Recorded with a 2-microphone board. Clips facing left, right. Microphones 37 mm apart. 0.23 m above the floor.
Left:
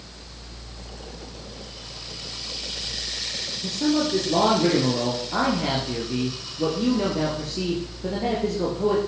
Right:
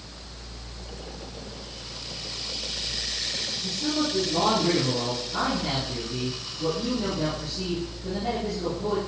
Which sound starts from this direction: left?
A man speaking, at 3.6 s.